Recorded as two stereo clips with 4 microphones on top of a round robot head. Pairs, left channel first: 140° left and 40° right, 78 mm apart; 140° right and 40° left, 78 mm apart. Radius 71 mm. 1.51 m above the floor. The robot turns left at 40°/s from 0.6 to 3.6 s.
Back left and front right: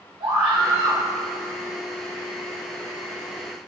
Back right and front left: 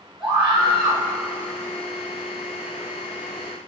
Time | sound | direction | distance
0.2 | a scream | 45° right | 2.5 m